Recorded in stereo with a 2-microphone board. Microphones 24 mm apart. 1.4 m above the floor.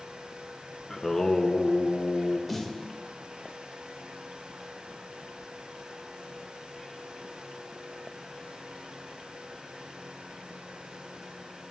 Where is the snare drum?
Centre (ahead or behind), 2 m.